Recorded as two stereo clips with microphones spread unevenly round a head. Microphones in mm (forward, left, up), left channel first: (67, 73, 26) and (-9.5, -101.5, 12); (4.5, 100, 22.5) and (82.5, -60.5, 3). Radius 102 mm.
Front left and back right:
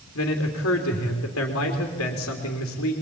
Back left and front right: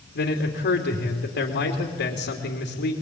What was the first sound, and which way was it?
A man speaking, 90° left.